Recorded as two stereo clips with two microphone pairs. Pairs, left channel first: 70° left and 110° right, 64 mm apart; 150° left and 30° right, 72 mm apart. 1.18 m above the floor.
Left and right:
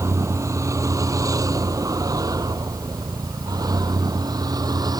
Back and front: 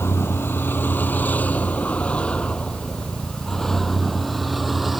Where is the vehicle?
155° right; by 5.0 s 115° right.